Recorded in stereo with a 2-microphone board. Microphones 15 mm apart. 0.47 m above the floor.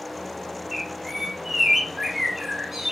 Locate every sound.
0.7 s a bird: 25° right (ahead or behind), 0.7 m